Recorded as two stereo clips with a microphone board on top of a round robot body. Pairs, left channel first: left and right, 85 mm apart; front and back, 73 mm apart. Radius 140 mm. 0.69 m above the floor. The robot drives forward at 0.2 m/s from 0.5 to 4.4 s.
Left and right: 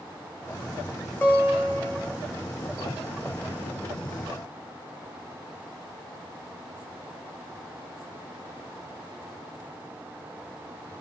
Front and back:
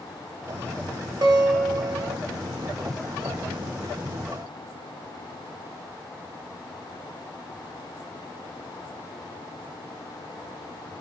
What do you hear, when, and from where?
1.2 s a guitar: 155° left, 0.7 m; by 2.2 s 160° left, 0.9 m